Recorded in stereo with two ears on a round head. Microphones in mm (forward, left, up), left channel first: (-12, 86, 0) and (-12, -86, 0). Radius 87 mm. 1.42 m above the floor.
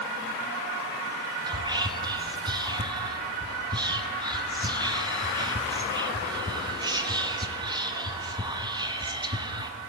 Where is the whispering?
20° right (ahead or behind), 0.6 m.